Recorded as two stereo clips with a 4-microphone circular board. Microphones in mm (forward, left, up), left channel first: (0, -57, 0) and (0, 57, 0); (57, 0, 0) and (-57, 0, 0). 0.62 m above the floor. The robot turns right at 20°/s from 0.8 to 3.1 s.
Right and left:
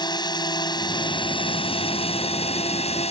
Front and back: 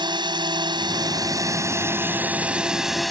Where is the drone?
135° right; by 3.1 s 90° right.